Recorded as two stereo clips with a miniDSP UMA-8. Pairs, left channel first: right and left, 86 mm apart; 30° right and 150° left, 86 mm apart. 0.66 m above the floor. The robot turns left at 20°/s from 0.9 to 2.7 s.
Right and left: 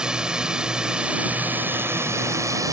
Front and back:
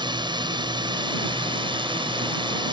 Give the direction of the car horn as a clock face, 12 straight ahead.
No car horn in this recording.